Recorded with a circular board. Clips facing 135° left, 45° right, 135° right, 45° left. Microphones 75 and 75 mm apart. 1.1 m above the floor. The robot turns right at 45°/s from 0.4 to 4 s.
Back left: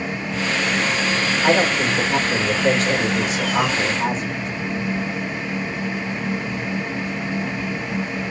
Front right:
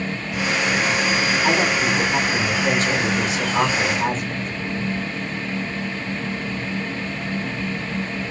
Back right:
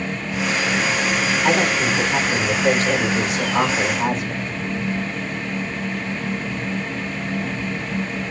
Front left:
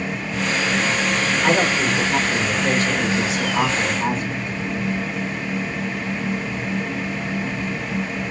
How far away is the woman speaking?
About 3 m.